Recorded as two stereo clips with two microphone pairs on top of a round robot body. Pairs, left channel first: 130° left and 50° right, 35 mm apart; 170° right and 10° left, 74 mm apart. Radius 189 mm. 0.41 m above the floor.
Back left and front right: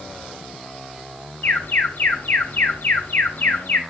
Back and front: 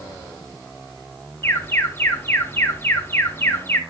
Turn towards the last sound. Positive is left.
turn(degrees=135)